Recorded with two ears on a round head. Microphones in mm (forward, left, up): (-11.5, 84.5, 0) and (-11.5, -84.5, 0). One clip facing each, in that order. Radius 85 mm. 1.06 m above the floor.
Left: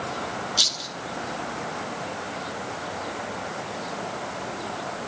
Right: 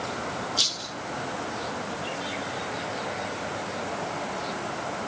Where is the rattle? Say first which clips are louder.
Left 1 dB; 15° left (ahead or behind), 1.7 m.